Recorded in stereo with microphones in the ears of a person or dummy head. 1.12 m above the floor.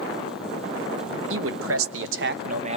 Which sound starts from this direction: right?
A man speaking, at 1.3 s.